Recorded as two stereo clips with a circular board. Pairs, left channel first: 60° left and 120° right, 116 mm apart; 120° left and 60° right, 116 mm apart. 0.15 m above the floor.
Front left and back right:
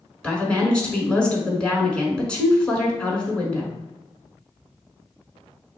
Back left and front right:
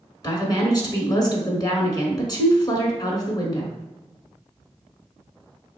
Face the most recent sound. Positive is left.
turn(degrees=135)